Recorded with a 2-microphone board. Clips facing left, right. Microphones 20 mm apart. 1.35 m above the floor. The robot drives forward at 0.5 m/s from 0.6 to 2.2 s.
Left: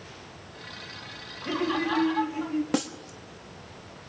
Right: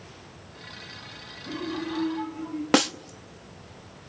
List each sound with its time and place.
1.4 s laughter: 80° left, 3 m; by 2.6 s 85° left, 3 m
2.7 s a snare drum: 45° right (ahead or behind), 1.1 m